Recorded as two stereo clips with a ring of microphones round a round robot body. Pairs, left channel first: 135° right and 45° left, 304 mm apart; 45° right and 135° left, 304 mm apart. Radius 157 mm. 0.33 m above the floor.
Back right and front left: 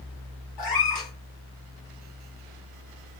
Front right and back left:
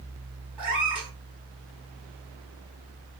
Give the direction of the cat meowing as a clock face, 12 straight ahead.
5 o'clock.